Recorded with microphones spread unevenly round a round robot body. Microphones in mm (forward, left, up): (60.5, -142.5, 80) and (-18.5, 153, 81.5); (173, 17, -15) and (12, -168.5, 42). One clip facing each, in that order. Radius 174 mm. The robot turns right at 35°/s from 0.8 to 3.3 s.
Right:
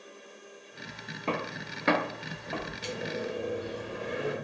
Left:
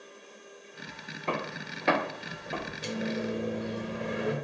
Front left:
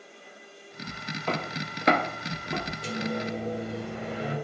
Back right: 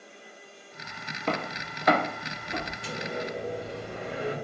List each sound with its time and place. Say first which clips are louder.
1.3 s footsteps: right 1 dB, back right 1 dB; 115° right, 0.6 m; by 2.7 s 45° left, 1.0 m
2.8 s a microwave: left 4 dB, front left 5 dB; 75° left, 0.7 m; by 4.3 s 90° left, 0.7 m